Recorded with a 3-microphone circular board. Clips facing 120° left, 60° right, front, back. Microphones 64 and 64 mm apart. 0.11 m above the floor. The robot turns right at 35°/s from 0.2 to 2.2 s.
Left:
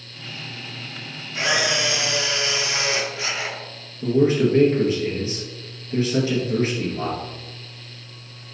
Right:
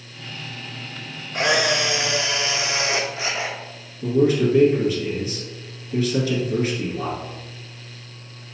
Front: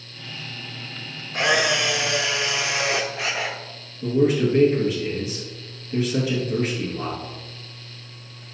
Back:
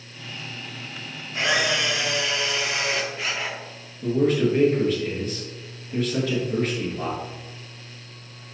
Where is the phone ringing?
I don't hear a phone ringing.